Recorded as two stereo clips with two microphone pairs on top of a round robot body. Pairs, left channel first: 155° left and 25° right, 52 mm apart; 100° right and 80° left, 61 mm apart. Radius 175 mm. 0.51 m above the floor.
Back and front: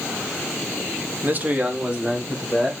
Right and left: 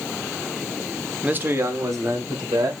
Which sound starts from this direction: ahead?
A man speaking, at 1.2 s.